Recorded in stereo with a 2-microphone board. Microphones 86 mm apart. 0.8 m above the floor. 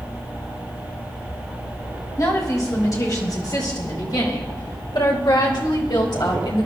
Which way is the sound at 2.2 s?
40° left (ahead or behind).